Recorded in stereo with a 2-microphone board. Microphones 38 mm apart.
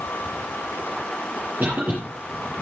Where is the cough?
55° right (ahead or behind), 6 m.